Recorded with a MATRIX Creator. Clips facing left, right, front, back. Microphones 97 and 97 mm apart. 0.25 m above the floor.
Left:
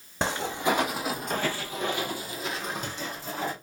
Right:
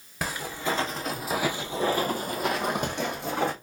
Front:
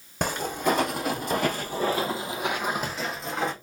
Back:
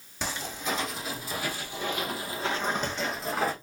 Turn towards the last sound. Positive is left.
turn(degrees=-95)